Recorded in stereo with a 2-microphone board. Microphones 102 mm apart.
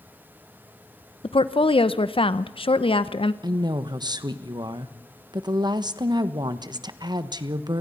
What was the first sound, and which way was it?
A woman speaking, 65° left (ahead or behind).